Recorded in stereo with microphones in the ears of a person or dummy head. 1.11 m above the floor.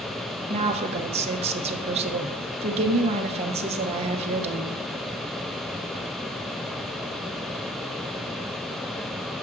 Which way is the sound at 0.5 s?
35° right (ahead or behind).